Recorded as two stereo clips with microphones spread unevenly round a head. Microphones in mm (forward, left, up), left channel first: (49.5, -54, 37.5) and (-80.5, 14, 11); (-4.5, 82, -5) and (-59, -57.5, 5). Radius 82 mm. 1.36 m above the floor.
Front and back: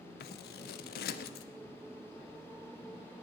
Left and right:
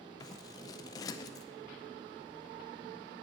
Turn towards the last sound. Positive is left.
turn(degrees=0)